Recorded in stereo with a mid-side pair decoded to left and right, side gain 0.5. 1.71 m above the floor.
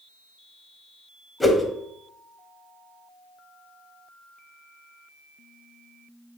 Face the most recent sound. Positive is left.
turn(degrees=15)